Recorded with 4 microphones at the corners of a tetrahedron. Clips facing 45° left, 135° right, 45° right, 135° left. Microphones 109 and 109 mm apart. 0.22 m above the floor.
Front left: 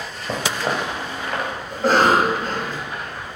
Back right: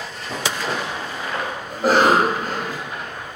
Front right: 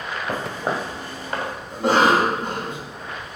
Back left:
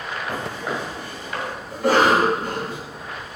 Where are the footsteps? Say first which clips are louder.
Front left 2 dB, front right 3 dB; 10° left, 1.6 m; by 1.5 s straight ahead, 2.5 m.